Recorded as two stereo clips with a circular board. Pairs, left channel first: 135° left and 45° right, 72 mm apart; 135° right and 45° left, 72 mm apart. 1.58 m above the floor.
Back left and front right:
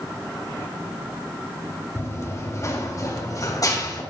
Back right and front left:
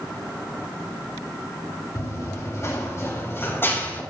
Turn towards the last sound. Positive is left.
turn(degrees=165)